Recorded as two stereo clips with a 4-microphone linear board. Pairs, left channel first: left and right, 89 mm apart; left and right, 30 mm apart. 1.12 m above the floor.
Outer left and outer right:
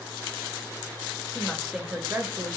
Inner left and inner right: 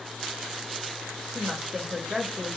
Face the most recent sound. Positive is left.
turn(degrees=-40)  # may be behind; listen again after turning